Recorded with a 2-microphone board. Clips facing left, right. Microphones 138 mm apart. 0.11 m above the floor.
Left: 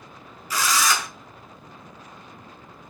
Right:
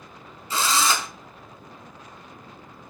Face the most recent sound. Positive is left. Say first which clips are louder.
# even
turn(degrees=-25)  # may be behind; listen again after turning